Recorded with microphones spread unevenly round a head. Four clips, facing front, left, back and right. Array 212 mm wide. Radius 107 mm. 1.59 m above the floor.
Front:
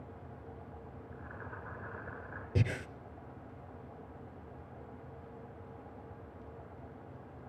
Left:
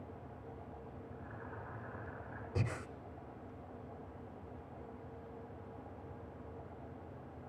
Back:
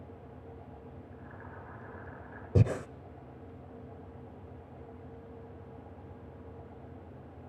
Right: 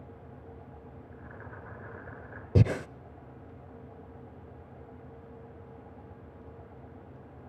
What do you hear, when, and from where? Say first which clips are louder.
1.1 s boiling: right 2 dB, front 1 dB; 65° right, 8 m
2.5 s breathing: right 14 dB, back 6 dB; 120° right, 0.5 m